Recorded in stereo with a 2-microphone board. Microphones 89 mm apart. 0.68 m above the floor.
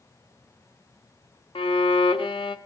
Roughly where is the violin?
Left.